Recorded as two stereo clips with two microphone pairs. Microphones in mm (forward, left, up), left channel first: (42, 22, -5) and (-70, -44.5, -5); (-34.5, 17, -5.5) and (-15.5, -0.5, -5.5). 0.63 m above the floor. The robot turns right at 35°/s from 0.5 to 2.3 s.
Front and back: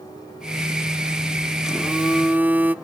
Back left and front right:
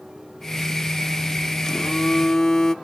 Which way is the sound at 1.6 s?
130° left.